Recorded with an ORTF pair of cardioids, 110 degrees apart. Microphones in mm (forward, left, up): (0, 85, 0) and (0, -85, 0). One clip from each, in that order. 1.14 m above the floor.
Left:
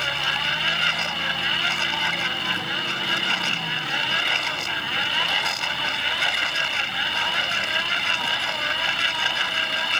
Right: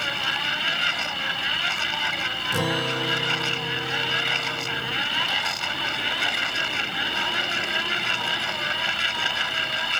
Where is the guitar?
70° right.